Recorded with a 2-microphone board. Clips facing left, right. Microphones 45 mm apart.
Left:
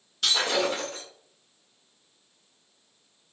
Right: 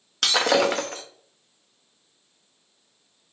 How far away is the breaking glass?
About 0.7 m.